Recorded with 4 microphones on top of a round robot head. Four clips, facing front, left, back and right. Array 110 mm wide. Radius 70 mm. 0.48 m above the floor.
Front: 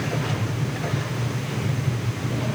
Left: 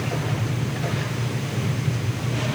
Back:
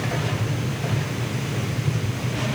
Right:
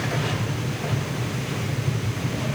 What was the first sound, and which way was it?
Only background noise.